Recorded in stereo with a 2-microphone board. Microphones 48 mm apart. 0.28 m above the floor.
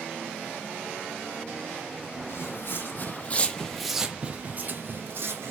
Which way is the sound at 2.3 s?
60° left (ahead or behind).